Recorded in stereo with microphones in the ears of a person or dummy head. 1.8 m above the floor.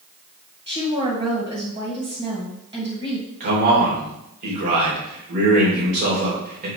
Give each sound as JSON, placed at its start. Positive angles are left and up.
{"t": 0.7, "sound": "a woman speaking", "side_deg": -25, "distance_m": 2.5}
{"t": 3.4, "sound": "a man speaking", "side_deg": -55, "distance_m": 3.0}